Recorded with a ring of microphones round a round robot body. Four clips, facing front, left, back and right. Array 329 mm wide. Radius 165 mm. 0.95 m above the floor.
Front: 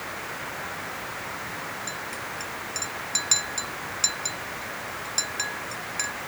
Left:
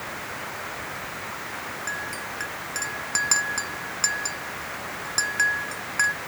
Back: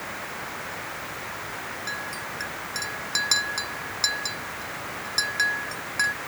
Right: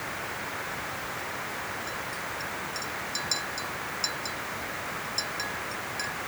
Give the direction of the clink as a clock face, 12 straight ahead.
9 o'clock.